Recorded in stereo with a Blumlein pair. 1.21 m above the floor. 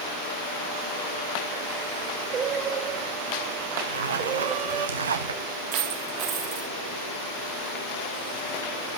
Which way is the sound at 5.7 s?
25° right.